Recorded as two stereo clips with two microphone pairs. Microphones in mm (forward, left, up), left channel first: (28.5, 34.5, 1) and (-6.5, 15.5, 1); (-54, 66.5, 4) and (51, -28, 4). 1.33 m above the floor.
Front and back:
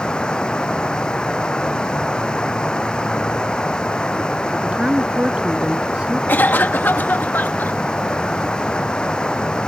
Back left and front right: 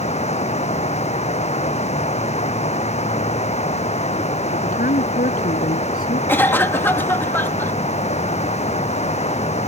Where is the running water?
100° left.